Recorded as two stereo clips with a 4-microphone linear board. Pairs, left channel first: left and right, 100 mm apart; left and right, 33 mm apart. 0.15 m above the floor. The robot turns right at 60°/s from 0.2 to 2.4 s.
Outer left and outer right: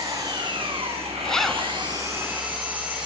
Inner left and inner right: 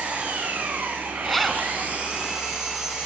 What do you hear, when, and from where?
0.0 s an engine running: 150° right, 6.5 m; by 3.0 s 15° right, 6.5 m
1.2 s a zipper: 10° left (ahead or behind), 0.9 m; by 1.7 s 5° right (ahead or behind), 0.9 m